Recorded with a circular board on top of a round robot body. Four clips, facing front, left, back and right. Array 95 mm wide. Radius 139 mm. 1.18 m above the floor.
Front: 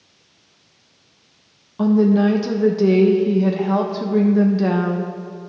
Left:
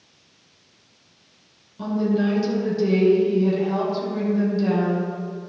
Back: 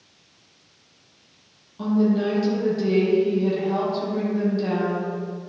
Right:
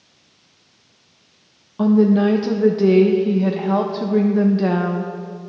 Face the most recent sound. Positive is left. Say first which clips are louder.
# right 8 dB, front 6 dB
turn(degrees=-50)